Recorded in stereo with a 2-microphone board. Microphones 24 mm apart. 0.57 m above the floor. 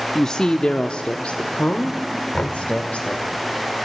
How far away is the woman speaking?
About 0.6 m.